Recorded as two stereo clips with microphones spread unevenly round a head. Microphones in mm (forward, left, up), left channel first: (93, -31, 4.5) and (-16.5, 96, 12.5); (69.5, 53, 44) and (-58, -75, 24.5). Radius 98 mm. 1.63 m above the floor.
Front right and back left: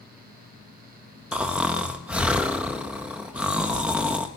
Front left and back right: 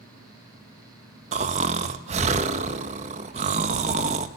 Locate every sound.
1.3 s snoring: 160° right, 0.9 m